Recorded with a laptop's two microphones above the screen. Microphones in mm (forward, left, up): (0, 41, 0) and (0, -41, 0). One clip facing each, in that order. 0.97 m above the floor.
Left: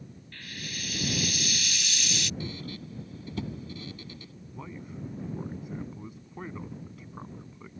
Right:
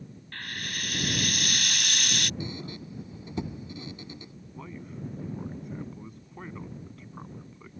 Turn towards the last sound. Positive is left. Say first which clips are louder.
# even
turn(degrees=5)  # may be behind; listen again after turning